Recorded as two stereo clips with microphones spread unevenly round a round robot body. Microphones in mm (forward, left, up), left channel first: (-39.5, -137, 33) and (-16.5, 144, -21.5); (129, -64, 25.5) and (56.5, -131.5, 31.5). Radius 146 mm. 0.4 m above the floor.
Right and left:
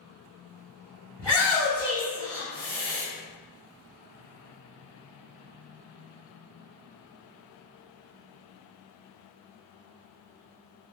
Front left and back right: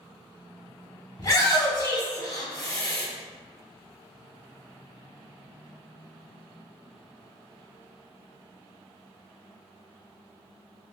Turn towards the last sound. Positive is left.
turn(degrees=10)